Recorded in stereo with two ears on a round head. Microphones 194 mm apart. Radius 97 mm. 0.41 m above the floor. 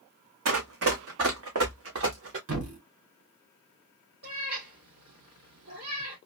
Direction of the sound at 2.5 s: 80° right.